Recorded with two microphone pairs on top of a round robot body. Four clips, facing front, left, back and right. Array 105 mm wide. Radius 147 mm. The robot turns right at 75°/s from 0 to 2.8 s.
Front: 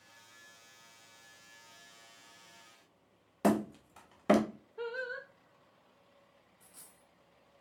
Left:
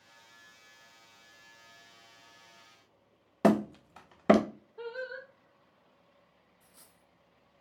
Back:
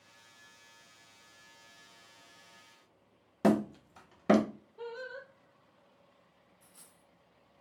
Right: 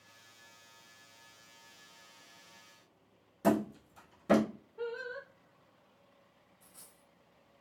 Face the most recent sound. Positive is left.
turn(degrees=5)